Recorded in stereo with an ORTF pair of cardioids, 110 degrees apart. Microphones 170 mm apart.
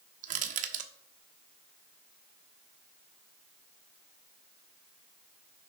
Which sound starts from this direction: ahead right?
Crushing, at 0.2 s.